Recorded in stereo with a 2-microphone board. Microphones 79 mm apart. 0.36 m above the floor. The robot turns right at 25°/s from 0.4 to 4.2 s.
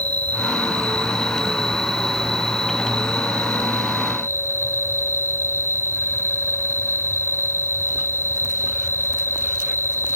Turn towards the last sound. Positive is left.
turn(degrees=-35)